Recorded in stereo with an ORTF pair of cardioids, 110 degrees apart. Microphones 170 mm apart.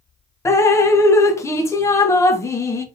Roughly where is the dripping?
Ahead.